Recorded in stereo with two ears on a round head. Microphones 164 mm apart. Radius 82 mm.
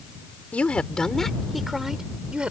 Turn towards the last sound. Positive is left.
turn(degrees=-5)  # may be behind; listen again after turning